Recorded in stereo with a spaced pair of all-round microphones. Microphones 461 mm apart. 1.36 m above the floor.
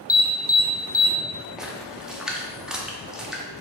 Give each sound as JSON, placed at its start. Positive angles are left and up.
{"t": 0.1, "sound": "an alarm", "side_deg": 20, "distance_m": 0.5}
{"t": 1.6, "sound": "a splash", "side_deg": 0, "distance_m": 0.5}